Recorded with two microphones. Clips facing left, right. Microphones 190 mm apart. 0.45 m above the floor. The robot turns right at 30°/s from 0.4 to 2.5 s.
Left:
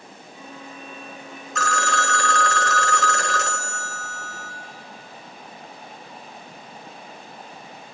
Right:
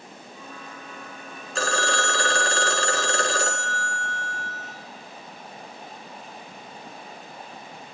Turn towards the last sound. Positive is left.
turn(degrees=-30)  # may be behind; listen again after turning